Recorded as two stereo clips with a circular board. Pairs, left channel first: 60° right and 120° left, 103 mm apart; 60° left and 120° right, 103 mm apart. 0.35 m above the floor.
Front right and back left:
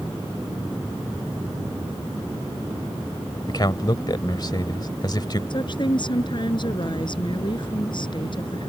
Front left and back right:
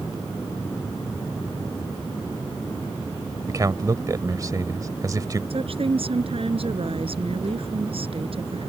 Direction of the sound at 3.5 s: 80° right.